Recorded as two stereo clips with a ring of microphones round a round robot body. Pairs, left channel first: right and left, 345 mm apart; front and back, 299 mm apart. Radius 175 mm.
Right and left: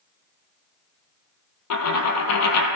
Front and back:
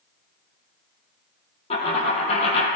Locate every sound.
1.7 s a dropped coin: 65° right, 1.1 m